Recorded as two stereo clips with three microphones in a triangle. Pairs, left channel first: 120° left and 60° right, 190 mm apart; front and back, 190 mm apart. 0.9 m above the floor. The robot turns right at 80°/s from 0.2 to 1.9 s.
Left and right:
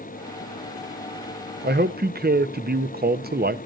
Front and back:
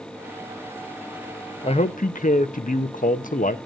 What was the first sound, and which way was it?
A man speaking, 60° right.